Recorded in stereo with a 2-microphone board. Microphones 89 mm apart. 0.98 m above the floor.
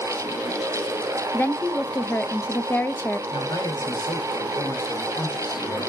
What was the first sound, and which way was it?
A woman speaking, 20° left (ahead or behind).